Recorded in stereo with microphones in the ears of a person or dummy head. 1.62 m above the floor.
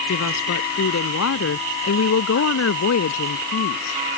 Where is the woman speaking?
85° left.